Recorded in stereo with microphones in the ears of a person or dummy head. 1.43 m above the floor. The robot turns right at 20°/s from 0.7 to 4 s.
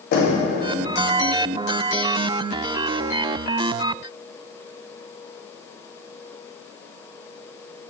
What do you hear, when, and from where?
0.1 s knocking: 60° left (ahead or behind), 0.8 m